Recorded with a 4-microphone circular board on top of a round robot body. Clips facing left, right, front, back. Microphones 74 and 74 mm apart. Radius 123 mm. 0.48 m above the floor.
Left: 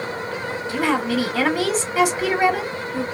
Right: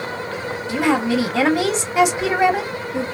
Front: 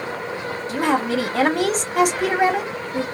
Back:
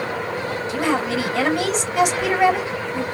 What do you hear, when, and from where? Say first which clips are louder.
0.7 s a woman speaking: right 3 dB, front 2 dB; 30° right, 1.3 m